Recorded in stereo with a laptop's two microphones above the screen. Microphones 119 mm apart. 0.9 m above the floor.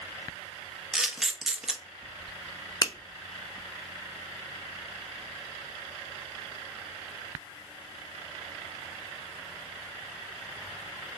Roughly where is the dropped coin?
I don't hear a dropped coin.